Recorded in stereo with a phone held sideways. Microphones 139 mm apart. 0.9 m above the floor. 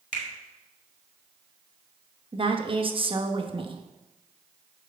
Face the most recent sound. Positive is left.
turn(degrees=-40)  # may be behind; listen again after turning